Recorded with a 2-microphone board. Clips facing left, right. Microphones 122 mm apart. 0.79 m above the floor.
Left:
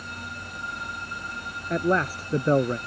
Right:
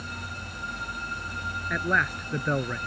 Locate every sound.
1.7 s a man speaking: 35° left (ahead or behind)